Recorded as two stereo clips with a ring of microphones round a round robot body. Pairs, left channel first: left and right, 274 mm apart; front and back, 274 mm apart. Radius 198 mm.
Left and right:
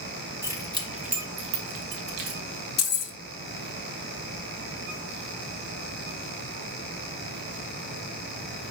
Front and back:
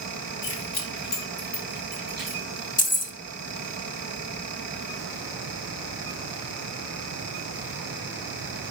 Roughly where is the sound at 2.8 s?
Ahead left.